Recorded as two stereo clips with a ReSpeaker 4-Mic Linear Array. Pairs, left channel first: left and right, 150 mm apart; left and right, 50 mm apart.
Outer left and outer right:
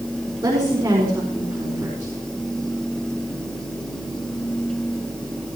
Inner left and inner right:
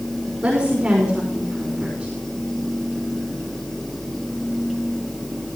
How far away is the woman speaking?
About 4.5 m.